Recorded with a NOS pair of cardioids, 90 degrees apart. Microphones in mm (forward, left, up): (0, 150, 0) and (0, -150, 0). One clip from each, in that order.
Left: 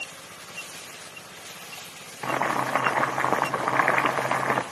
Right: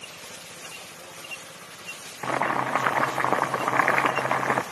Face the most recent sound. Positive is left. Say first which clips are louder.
# even
turn(degrees=-5)